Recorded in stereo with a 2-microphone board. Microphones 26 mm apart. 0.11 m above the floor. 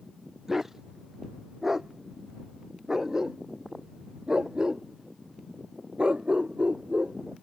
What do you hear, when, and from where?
0.5 s a dog barking: 10° right (ahead or behind); by 7.2 s 50° right (ahead or behind)